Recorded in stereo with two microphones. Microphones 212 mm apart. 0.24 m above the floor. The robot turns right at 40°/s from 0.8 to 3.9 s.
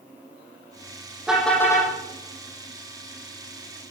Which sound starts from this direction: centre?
A car horn, at 1.3 s.